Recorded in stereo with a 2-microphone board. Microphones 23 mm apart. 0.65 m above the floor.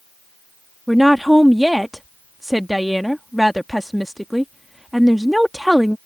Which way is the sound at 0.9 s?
5° right (ahead or behind).